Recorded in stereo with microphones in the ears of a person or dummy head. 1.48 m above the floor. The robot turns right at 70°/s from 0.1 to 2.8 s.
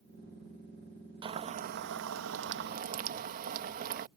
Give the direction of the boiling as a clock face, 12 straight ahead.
5 o'clock.